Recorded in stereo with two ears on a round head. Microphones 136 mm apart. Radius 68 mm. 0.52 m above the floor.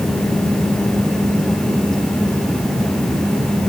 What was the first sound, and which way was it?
Only background noise.